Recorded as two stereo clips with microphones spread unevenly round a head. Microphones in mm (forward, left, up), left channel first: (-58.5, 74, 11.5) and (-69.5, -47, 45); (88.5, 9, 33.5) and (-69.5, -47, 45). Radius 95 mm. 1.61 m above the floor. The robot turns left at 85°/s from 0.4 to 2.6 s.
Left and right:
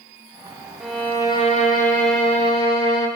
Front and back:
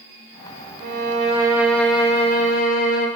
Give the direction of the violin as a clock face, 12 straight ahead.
6 o'clock.